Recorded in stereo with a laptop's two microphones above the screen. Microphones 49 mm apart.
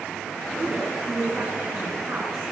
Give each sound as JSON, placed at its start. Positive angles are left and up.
{"t": 0.6, "sound": "a woman speaking", "side_deg": -60, "distance_m": 9.0}